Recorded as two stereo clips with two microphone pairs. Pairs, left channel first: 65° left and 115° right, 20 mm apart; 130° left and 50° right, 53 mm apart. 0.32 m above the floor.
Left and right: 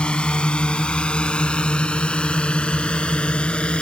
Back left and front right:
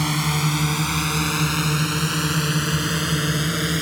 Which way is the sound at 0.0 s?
40° left.